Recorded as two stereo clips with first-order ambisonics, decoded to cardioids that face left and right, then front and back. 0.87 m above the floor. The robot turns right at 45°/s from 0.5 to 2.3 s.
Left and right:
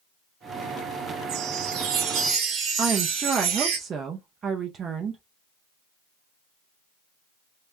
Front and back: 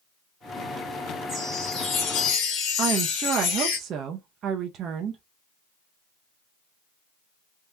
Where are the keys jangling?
I don't hear keys jangling.